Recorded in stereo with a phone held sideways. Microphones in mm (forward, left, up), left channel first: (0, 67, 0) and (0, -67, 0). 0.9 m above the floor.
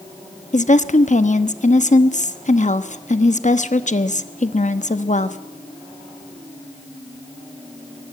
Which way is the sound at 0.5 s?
60° left (ahead or behind).